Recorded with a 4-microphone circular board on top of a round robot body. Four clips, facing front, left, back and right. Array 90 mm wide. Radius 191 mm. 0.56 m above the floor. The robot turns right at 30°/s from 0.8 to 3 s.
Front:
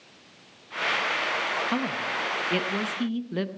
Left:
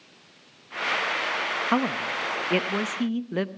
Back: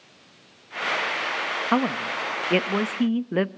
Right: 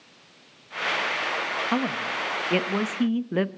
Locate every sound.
1.7 s a woman speaking: 155° left, 1.0 m; by 3.5 s 165° right, 1.0 m